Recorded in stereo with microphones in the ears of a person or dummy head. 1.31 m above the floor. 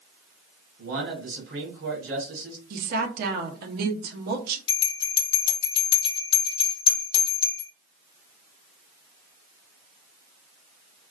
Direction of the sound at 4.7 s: 30° left (ahead or behind).